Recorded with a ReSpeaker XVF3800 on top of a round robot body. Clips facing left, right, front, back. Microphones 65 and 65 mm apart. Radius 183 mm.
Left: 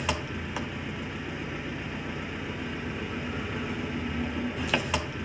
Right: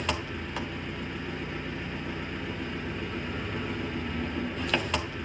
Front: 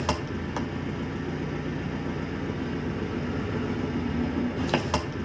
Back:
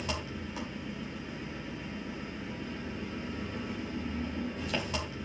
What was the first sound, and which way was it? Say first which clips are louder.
An engine running: left 1 dB, front 8 dB; 5° left.